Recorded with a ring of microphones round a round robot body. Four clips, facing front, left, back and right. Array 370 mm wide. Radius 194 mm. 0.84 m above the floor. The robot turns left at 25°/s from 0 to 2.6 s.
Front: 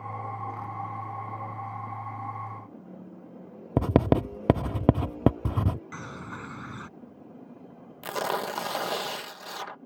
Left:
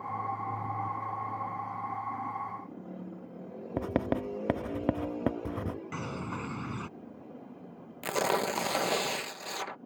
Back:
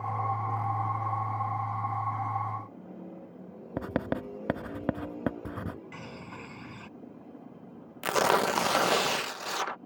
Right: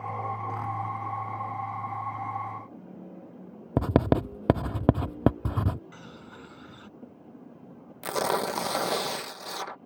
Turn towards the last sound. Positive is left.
turn(degrees=-175)